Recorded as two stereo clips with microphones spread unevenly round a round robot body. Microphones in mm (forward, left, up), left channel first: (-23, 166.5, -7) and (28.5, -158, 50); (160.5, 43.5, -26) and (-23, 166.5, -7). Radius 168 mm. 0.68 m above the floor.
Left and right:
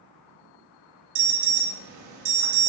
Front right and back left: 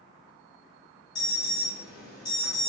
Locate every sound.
1.1 s an alarm: 95° right, 1.0 m